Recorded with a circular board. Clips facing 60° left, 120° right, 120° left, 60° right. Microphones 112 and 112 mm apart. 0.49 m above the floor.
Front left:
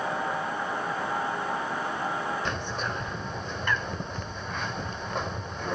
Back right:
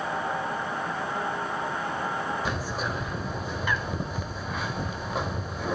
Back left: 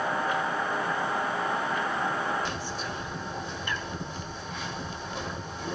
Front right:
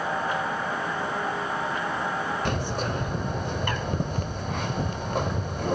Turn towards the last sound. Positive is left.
turn(degrees=-35)